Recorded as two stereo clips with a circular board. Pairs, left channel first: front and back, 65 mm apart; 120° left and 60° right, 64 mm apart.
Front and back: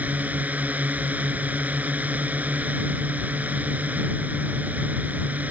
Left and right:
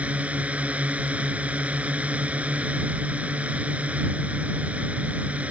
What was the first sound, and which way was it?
A drone, 120° right.